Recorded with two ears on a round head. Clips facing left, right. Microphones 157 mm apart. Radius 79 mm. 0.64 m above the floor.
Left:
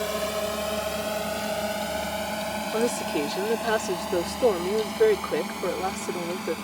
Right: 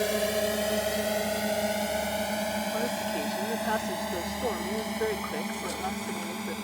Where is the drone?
20° right (ahead or behind); by 6.7 s 5° right (ahead or behind).